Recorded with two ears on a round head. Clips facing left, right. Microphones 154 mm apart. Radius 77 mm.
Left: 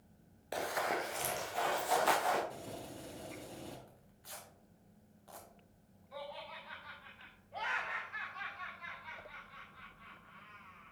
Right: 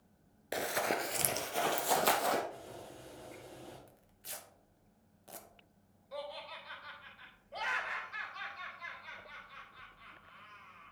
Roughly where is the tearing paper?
Right.